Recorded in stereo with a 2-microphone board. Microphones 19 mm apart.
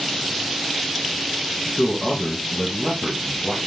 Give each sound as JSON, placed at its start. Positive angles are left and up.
{"t": 1.8, "sound": "a man speaking", "side_deg": 10, "distance_m": 1.5}